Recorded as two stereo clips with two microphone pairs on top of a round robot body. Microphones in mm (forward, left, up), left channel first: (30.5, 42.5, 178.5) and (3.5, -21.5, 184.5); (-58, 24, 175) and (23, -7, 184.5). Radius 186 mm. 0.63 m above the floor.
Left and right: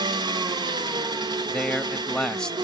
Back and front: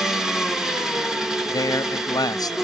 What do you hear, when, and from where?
0.0 s an engine running: 105° right, 0.8 m
1.5 s a man speaking: 140° left, 0.9 m